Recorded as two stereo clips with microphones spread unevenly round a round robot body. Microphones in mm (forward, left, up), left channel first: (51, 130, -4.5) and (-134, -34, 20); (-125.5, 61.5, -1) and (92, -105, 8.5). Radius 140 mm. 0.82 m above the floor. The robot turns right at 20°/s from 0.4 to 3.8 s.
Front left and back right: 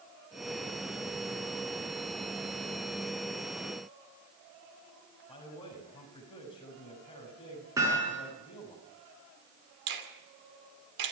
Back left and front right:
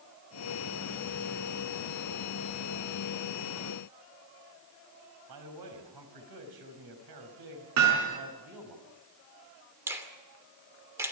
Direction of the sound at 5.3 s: 30° right.